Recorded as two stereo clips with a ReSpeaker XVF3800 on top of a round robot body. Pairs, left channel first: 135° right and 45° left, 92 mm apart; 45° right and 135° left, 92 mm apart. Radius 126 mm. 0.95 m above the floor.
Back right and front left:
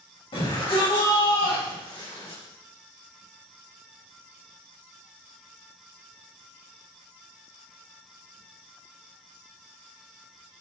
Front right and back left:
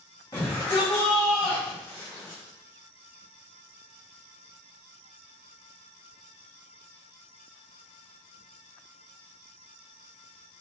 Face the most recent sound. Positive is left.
turn(degrees=-105)